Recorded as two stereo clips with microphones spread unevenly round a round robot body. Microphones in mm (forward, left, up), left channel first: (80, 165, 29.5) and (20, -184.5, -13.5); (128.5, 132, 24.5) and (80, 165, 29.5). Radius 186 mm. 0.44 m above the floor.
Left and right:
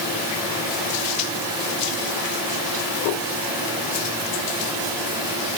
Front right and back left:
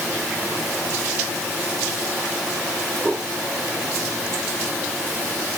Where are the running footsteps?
I don't hear running footsteps.